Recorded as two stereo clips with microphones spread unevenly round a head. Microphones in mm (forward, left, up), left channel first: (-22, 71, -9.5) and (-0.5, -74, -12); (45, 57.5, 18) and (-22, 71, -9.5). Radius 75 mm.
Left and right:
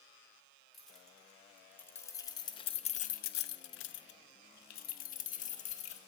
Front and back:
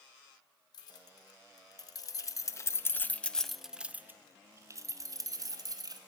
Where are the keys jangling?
10° left, 1.9 m; by 6.0 s 145° left, 1.7 m.